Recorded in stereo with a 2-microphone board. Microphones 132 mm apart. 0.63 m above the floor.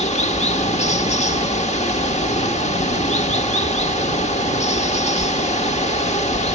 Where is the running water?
60° left (ahead or behind), 1.0 m.